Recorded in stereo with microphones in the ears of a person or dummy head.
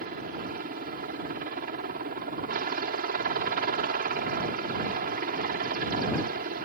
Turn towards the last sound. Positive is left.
turn(degrees=-45)  # may be behind; listen again after turning